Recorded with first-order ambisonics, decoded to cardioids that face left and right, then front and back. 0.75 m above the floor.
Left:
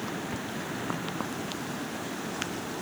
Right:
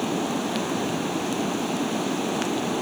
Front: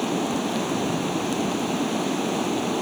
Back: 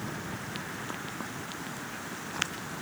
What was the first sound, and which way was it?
Running water, 35° right.